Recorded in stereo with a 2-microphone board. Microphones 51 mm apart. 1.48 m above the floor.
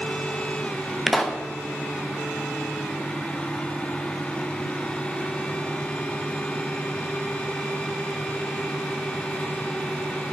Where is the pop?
5° left (ahead or behind), 1.2 m.